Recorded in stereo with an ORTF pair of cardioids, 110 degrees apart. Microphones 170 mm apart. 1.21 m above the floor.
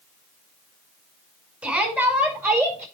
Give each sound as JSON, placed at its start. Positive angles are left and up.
{"t": 1.6, "sound": "a shout", "azimuth_deg": -10, "distance_m": 5.5}